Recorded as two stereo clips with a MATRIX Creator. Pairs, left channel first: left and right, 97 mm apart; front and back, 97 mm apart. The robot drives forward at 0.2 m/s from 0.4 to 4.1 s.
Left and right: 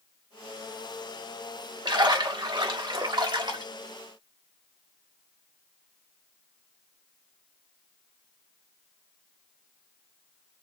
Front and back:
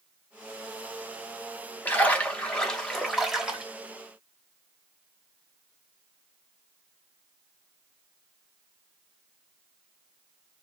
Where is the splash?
65° right, 0.8 m; by 3.6 s 100° right, 0.7 m.